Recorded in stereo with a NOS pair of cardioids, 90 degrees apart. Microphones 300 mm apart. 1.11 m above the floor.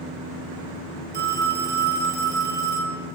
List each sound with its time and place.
1.1 s a phone ringing: 35° right, 1.0 m